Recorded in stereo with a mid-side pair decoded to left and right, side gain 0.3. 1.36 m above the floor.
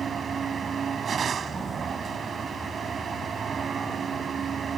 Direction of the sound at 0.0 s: 70° right.